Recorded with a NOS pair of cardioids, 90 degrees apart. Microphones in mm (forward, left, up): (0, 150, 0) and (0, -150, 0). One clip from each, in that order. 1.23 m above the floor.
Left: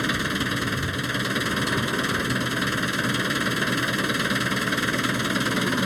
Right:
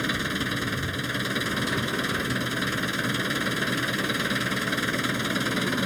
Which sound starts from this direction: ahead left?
An engine running, at 0.0 s.